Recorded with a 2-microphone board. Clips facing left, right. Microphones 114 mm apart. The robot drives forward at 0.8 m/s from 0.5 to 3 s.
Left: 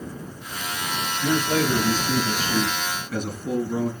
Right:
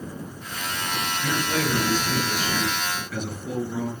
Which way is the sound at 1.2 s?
40° left (ahead or behind).